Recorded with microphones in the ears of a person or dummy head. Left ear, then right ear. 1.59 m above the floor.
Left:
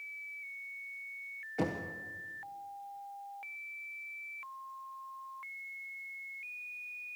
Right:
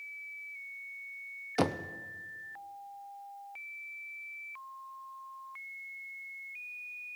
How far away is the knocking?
About 0.8 m.